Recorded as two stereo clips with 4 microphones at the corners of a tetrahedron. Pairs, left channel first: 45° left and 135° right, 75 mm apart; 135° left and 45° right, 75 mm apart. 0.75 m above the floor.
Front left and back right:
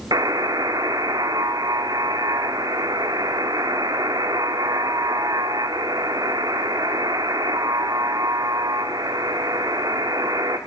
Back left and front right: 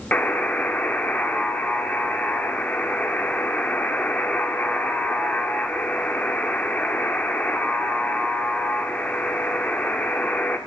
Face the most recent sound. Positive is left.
turn(degrees=-160)